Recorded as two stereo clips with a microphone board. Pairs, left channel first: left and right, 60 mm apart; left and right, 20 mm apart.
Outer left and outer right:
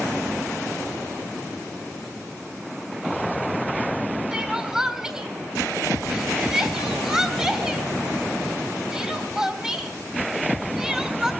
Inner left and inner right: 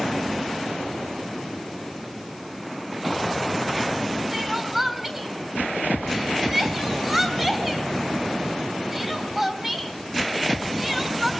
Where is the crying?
10° right (ahead or behind), 3.5 m.